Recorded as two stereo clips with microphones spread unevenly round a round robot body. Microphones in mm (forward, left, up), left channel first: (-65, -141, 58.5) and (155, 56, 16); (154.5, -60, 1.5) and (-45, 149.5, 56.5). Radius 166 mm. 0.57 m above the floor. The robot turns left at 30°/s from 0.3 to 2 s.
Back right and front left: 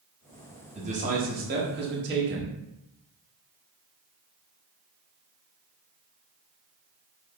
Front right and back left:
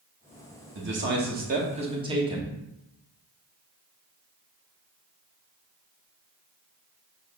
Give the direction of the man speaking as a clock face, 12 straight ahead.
9 o'clock.